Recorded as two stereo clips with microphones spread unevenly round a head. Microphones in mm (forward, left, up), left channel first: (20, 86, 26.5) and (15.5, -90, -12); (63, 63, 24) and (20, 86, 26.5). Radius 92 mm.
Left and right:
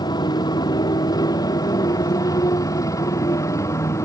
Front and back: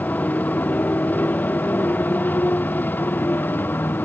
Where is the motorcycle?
25° left; by 4.1 s 15° left.